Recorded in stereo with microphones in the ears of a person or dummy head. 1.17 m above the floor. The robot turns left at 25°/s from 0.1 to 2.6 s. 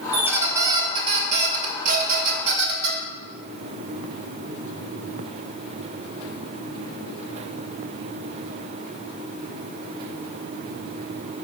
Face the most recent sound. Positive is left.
turn(degrees=-70)